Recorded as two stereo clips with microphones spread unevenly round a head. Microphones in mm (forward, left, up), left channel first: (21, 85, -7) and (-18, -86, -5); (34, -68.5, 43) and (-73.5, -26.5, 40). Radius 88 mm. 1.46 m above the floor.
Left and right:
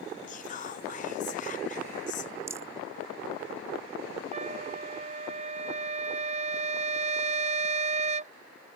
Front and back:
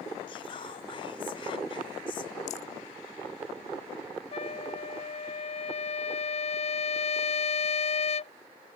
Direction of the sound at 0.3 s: 30° left.